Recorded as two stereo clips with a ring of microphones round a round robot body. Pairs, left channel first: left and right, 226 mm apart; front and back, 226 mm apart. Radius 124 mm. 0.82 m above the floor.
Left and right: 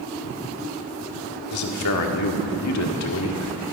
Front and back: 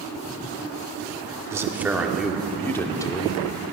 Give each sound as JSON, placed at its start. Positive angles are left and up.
{"t": 1.5, "sound": "a man speaking", "azimuth_deg": 100, "distance_m": 1.8}